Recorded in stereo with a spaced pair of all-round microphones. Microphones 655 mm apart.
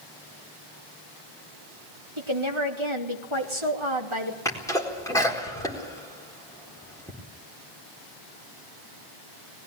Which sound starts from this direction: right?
A woman speaking, at 2.2 s.